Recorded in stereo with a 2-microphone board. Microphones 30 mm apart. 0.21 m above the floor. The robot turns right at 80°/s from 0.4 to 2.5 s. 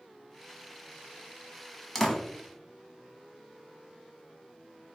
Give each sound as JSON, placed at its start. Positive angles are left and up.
{"t": 1.9, "sound": "a door slam", "side_deg": 10, "distance_m": 0.9}